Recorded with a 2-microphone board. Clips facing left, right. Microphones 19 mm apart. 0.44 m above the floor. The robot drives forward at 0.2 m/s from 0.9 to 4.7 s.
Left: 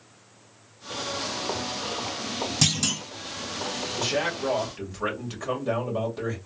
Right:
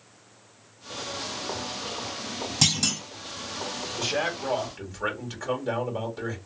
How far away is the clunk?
About 2.5 m.